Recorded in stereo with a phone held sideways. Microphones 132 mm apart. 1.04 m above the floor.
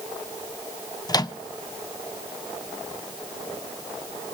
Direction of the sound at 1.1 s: 30° left (ahead or behind).